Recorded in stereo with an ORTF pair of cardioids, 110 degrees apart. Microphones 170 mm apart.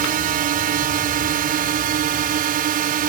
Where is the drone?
60° right.